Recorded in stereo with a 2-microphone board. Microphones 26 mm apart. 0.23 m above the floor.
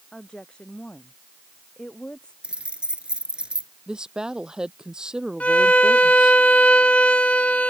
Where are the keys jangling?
45° right (ahead or behind).